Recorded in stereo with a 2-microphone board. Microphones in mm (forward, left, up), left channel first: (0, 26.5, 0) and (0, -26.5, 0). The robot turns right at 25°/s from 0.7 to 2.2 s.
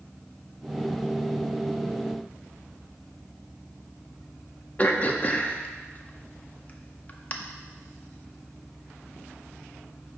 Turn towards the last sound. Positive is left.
turn(degrees=30)  # may be behind; listen again after turning